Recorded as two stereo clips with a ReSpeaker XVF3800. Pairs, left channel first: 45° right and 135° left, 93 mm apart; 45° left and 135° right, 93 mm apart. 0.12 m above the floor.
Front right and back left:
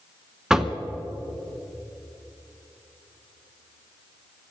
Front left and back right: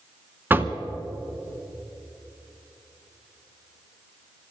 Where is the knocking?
155° right, 0.8 m.